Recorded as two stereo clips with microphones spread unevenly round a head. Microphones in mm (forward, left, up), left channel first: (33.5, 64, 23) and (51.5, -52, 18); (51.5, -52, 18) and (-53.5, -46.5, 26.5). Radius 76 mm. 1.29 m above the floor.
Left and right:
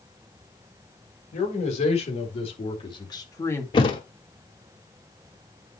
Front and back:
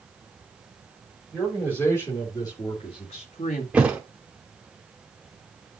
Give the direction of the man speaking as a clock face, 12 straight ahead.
9 o'clock.